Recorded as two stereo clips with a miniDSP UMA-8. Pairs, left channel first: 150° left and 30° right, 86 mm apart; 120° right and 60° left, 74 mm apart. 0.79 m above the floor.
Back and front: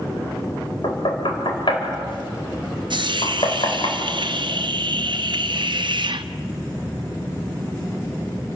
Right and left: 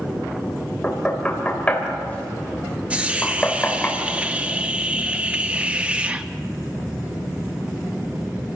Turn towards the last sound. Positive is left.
turn(degrees=-10)